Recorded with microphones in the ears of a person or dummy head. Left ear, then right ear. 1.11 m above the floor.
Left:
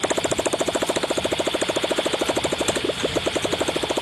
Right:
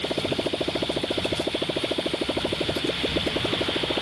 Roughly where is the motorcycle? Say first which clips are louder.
Left 4 dB; left.